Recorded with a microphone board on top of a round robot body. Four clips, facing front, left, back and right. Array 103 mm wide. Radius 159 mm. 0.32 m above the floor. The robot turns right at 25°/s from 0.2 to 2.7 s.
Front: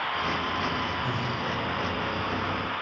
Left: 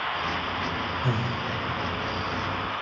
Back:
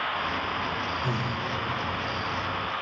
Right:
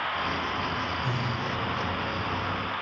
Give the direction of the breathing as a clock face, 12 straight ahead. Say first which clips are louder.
Left 2 dB, even; 9 o'clock.